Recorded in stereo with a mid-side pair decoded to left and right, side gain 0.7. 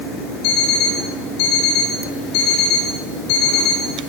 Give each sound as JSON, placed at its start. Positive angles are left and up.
{"t": 0.4, "sound": "an alarm clock", "azimuth_deg": 65, "distance_m": 7.5}